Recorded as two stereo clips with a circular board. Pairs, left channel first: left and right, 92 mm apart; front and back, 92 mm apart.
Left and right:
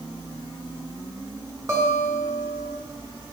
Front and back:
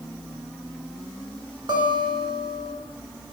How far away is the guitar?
About 1.4 m.